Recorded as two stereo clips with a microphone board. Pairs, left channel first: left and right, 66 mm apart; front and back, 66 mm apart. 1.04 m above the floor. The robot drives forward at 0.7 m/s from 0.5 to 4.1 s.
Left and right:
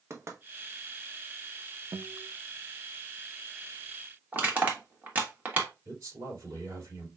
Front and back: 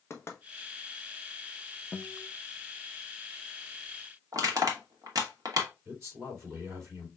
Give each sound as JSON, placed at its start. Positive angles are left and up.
{"t": 0.1, "sound": "knocking", "azimuth_deg": -50, "distance_m": 1.1}
{"t": 1.9, "sound": "a guitar", "azimuth_deg": -80, "distance_m": 0.6}
{"t": 4.3, "sound": "crushing", "azimuth_deg": -155, "distance_m": 1.5}
{"t": 5.8, "sound": "a man speaking", "azimuth_deg": -130, "distance_m": 3.0}